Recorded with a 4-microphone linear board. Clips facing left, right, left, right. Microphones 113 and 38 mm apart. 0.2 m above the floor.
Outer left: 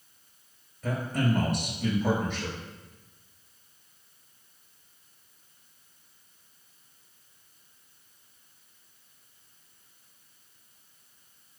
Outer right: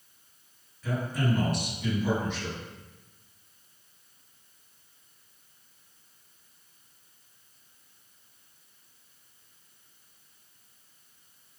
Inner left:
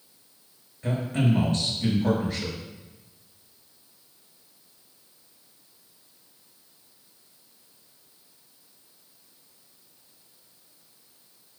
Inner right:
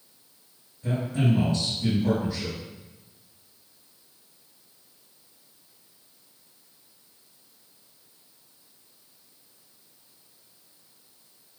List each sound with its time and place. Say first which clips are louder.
0.8 s a man speaking: outer left 1 dB, even; 50° left (ahead or behind), 3.5 m